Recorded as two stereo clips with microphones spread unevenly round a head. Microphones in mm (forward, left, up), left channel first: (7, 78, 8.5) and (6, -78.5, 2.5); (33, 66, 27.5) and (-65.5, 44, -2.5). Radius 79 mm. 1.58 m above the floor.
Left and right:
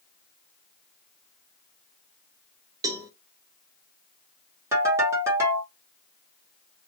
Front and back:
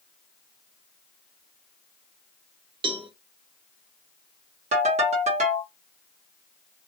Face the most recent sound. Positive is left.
turn(degrees=-165)